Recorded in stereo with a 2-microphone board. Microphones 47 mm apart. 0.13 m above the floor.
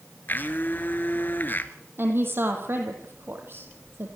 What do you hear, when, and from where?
0.3 s a blender: 45° left (ahead or behind), 1.6 m
2.0 s a woman speaking: 55° right (ahead or behind), 5 m